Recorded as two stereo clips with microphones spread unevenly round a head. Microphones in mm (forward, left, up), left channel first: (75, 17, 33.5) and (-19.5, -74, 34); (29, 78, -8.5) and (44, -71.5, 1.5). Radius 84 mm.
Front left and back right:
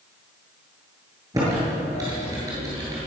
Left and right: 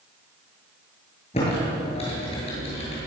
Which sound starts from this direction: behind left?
Typing on a keyboard, at 1.3 s.